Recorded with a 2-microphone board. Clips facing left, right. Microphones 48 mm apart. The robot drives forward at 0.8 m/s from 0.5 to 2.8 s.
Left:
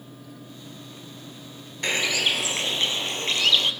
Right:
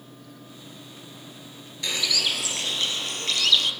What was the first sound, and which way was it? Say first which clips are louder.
A bird: left 3 dB; 40° left (ahead or behind).